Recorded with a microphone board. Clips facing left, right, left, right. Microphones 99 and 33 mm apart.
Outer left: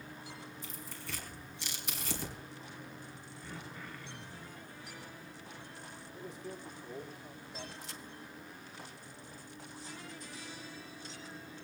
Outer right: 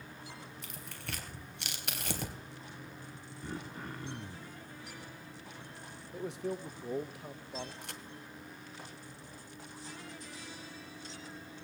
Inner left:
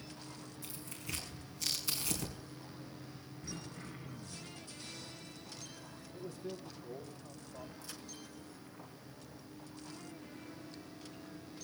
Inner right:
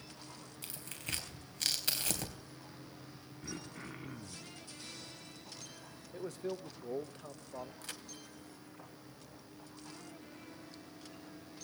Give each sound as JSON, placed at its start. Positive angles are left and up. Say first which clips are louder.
{"t": 0.6, "sound": "tearing paper", "louder": "even, inner right 3 dB", "side_deg": -65, "distance_m": 3.5}
{"t": 3.4, "sound": "throat clearing", "louder": "outer right 5 dB, inner right 2 dB", "side_deg": -40, "distance_m": 1.5}
{"t": 6.1, "sound": "a man speaking", "louder": "outer right 9 dB, inner right 5 dB", "side_deg": -75, "distance_m": 1.4}
{"t": 7.8, "sound": "a crack", "louder": "outer right 1 dB, inner right 2 dB", "side_deg": -60, "distance_m": 1.9}